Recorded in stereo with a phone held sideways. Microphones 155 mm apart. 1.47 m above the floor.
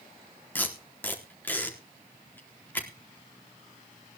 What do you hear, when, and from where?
0.6 s tape being pulled: 10° left (ahead or behind), 4 m